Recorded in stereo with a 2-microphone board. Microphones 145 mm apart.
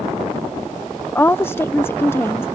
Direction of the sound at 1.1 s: 15° left (ahead or behind).